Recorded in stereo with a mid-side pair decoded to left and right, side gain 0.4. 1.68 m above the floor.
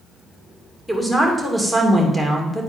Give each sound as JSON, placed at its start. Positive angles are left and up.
{"t": 0.9, "sound": "a woman speaking", "azimuth_deg": 0, "distance_m": 2.5}